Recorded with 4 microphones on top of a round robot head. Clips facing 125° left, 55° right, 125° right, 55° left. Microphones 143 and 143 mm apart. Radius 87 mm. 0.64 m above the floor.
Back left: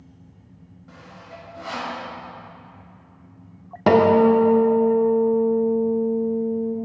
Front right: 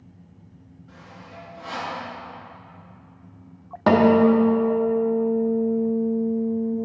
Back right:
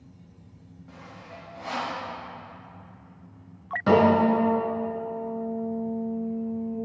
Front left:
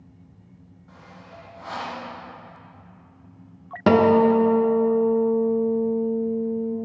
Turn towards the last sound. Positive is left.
turn(degrees=50)